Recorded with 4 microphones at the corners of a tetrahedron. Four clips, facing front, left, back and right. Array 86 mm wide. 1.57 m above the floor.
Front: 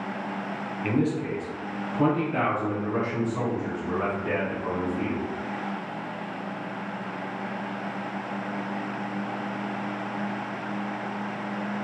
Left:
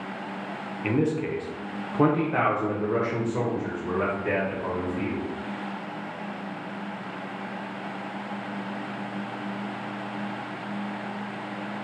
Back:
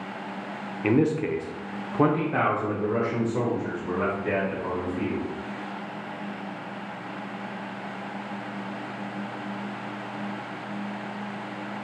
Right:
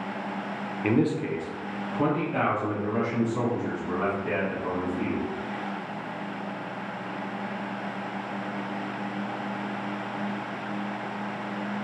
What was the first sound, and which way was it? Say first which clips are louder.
A man speaking: right 1 dB, back 4 dB; 150° right.